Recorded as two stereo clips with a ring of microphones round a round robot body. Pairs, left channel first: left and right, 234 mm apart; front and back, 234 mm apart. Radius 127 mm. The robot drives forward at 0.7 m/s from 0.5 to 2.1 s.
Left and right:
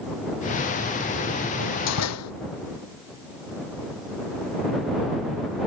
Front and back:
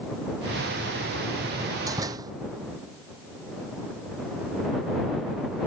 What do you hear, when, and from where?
1.6 s a door slam: 100° left; by 2.3 s 105° left